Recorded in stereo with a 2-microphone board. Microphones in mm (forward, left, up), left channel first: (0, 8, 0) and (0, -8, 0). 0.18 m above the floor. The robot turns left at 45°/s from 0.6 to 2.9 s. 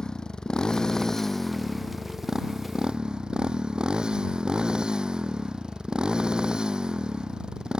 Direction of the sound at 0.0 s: 40° left.